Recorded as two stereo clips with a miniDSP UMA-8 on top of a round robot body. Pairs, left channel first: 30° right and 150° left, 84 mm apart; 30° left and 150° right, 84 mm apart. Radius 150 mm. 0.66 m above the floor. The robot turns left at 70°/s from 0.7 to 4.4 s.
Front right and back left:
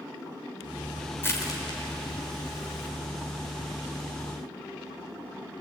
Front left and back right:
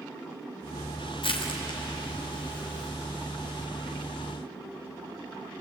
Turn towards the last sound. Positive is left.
turn(degrees=175)